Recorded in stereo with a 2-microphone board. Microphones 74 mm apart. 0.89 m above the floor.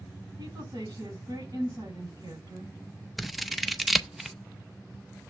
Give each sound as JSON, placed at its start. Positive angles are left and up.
{"t": 0.4, "sound": "a woman speaking", "side_deg": -60, "distance_m": 5.5}
{"t": 3.2, "sound": "scissors", "side_deg": 0, "distance_m": 0.6}